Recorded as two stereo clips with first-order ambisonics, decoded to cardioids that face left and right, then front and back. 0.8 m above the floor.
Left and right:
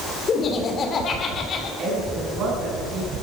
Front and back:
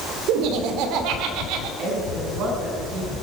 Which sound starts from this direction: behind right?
A woman speaking, at 1.8 s.